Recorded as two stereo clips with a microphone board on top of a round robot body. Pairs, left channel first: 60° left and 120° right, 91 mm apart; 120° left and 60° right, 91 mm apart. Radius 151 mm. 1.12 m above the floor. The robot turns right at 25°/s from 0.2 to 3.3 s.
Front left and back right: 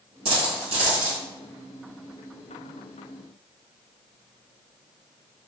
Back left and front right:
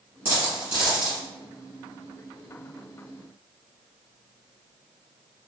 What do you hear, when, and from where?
0.2 s a dropped coin: 130° right, 1.0 m; by 1.2 s 110° right, 1.0 m